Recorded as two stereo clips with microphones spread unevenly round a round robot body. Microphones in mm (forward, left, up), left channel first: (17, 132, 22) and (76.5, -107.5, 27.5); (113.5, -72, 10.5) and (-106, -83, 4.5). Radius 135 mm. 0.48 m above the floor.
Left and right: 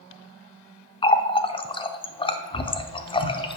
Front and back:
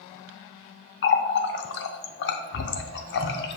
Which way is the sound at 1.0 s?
40° left.